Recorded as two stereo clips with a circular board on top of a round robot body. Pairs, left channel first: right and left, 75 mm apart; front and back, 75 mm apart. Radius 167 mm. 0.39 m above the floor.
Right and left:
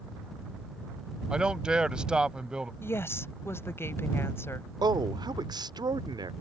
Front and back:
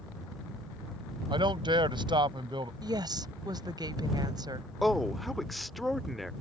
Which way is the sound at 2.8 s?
150° right.